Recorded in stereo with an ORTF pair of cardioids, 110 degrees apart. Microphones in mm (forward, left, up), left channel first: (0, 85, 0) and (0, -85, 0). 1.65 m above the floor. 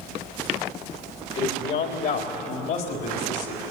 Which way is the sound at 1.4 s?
65° left.